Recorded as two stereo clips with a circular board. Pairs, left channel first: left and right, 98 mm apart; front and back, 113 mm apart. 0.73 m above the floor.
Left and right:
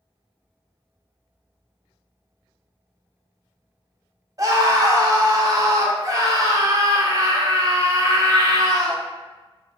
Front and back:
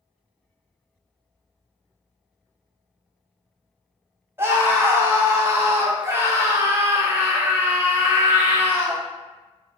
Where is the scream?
120° right, 0.7 m.